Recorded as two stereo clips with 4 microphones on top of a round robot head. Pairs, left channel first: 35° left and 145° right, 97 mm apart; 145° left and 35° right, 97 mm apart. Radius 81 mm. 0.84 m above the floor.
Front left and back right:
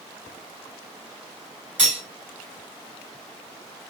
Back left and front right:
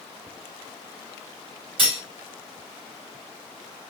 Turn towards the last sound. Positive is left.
turn(degrees=-70)